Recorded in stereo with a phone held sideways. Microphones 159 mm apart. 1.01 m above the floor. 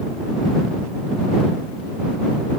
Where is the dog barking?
No dog barking in this recording.